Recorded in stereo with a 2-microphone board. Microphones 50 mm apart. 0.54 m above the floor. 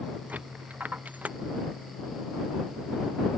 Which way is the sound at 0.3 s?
30° right (ahead or behind).